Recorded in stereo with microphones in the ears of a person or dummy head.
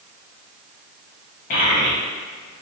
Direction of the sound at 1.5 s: 45° left (ahead or behind).